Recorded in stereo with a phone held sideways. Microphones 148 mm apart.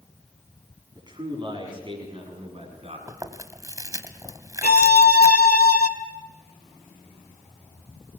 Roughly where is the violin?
Left.